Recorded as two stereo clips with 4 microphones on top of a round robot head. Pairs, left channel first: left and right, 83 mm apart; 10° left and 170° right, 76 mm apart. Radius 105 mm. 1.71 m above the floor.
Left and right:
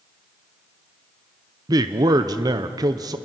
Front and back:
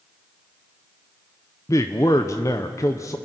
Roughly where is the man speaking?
Ahead right.